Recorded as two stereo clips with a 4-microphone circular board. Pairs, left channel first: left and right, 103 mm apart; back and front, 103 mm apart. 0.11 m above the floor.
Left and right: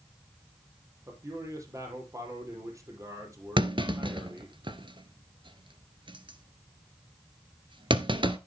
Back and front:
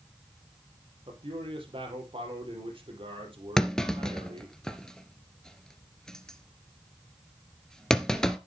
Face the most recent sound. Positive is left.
turn(degrees=-100)